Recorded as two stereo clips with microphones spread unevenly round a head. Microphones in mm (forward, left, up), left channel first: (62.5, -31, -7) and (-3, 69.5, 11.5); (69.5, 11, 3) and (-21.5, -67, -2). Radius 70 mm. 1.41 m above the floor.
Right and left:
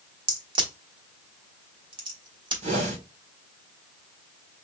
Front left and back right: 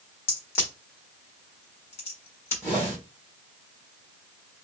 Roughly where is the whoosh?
Behind left.